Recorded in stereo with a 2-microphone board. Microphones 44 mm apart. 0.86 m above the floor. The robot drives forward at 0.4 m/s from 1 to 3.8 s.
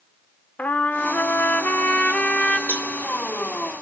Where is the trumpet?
45° left (ahead or behind), 0.5 m; by 2.6 s 25° left (ahead or behind), 0.9 m.